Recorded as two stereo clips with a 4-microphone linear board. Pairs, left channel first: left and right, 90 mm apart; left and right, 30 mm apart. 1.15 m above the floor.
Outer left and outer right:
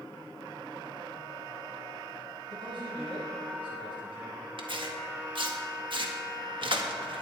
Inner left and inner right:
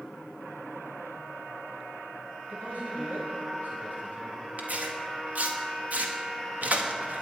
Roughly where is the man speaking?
Right.